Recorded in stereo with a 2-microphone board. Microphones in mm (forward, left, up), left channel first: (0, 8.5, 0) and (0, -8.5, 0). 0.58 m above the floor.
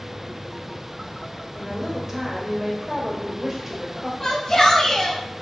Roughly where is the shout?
Left.